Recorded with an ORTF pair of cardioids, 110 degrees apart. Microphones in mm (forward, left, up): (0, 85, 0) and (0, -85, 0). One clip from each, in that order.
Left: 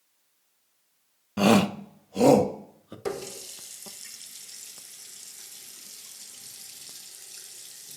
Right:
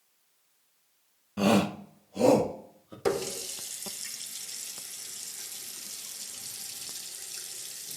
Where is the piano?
I don't hear a piano.